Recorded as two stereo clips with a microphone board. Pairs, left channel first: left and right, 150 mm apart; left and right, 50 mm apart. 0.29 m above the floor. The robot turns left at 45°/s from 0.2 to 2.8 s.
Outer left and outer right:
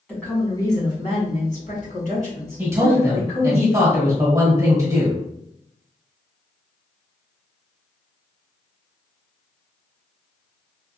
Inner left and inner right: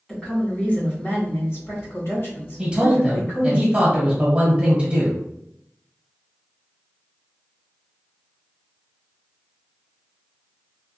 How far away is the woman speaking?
About 1.8 m.